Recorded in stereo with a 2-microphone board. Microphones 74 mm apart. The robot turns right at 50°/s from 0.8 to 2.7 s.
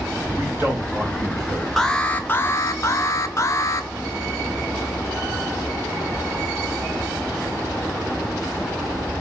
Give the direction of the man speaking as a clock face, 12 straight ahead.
5 o'clock.